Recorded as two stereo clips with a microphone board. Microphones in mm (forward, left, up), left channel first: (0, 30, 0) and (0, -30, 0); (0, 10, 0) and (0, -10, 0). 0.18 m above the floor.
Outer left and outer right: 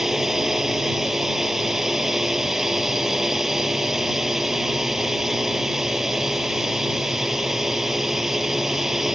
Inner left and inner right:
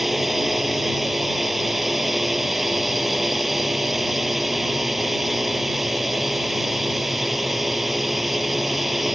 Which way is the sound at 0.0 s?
5° right (ahead or behind).